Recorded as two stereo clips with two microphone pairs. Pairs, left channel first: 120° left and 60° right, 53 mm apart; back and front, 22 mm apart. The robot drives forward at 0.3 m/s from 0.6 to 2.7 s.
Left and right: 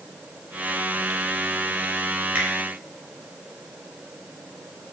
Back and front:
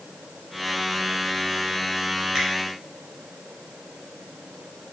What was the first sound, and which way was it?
A finger snap, 45° right.